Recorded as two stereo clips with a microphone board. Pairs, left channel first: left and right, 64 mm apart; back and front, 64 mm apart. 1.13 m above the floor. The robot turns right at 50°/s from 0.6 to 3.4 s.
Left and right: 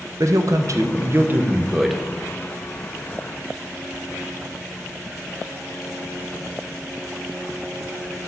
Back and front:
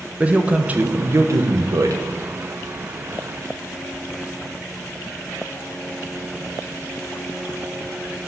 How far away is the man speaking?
About 0.8 m.